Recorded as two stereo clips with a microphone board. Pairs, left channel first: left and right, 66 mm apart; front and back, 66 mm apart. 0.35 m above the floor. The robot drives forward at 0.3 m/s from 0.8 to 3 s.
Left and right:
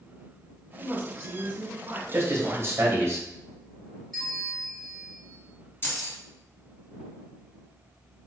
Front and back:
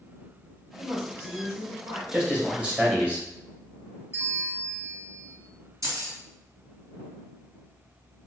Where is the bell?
170° left, 1.4 m.